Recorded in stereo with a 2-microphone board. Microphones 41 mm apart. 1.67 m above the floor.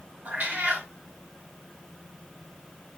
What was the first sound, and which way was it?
A cat meowing, 50° right (ahead or behind).